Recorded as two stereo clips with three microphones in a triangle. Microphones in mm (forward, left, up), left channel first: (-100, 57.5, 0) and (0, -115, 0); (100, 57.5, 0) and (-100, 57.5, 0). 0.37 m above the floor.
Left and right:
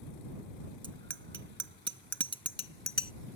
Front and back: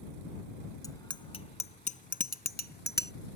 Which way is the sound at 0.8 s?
70° right.